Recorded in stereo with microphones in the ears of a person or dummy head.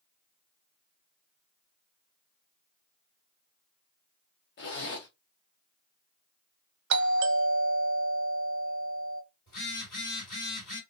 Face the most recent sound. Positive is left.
turn(degrees=45)  # may be behind; listen again after turning